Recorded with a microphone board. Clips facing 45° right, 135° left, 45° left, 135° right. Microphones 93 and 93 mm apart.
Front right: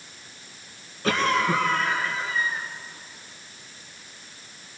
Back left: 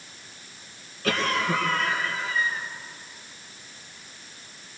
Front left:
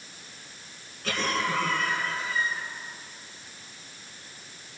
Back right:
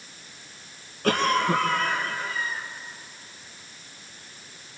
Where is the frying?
I don't hear frying.